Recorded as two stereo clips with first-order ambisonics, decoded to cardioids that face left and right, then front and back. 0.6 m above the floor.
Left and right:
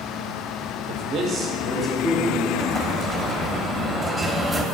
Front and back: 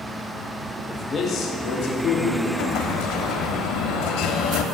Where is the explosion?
5° right, 0.5 m.